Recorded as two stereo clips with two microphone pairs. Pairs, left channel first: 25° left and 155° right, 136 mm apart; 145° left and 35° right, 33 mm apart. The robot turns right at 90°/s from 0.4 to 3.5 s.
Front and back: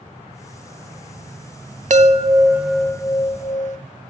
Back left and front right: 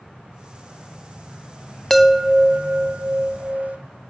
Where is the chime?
135° right, 0.6 m; by 3.8 s 10° left, 0.6 m.